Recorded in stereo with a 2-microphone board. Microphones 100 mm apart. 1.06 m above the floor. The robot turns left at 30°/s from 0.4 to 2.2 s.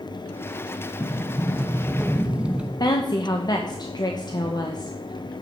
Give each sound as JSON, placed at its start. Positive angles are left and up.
{"t": 1.0, "sound": "a sliding door", "azimuth_deg": 25, "distance_m": 0.8}
{"t": 2.8, "sound": "a woman speaking", "side_deg": 45, "distance_m": 0.9}